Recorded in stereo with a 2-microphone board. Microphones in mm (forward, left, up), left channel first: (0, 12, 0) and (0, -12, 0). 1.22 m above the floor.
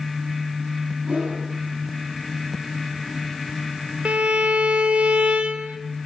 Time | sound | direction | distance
1.1 | a whoosh | 85° right | 8 m
4.0 | a violin | 60° right (ahead or behind) | 1.9 m